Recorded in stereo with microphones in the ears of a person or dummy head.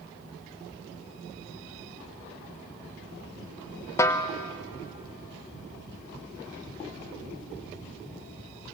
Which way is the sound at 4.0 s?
15° left (ahead or behind).